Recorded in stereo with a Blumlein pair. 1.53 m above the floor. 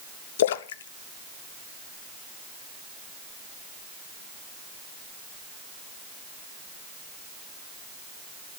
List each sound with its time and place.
0.4 s a splash: 60° left, 0.6 m